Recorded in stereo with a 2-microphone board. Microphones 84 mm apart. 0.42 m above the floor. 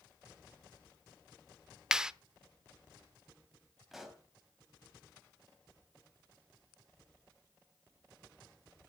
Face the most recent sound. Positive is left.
turn(degrees=-5)  # may be behind; listen again after turning